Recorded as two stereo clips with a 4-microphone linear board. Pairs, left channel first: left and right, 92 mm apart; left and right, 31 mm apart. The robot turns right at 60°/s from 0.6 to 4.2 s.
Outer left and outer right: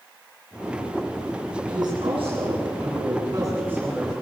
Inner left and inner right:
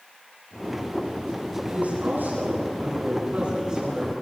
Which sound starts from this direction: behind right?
A woman speaking, at 1.7 s.